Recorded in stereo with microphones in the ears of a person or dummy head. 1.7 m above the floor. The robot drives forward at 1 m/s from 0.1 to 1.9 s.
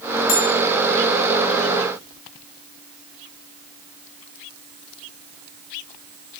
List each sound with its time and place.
0.3 s a bell: 40° left (ahead or behind), 1.6 m; by 0.5 s 35° left (ahead or behind), 1.8 m